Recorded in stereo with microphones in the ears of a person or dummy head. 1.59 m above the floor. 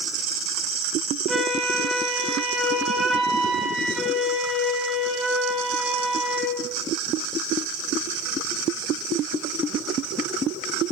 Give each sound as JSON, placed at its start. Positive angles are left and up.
{"t": 1.3, "sound": "a flute", "side_deg": 0, "distance_m": 0.9}